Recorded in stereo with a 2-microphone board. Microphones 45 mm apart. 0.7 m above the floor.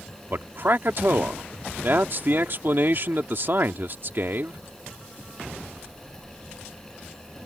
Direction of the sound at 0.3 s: 50° right (ahead or behind).